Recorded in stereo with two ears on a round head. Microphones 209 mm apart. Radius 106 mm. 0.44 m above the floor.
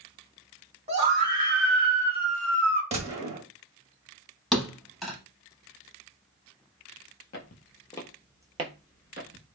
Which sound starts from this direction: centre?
A thud, at 4.5 s.